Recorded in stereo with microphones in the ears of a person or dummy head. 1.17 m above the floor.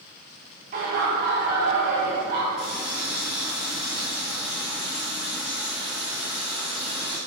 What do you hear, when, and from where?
0.7 s laughter: 40° right (ahead or behind), 1.0 m
2.6 s a running tap: centre (ahead or behind), 2.5 m